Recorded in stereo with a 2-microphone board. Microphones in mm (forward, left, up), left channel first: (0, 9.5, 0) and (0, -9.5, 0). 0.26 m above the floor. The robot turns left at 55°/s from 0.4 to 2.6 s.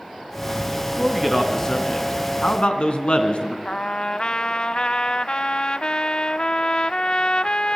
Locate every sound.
0.9 s a man speaking: 165° right, 3 m; by 3.5 s 100° left, 3 m
3.6 s a trumpet: 50° left (ahead or behind), 0.5 m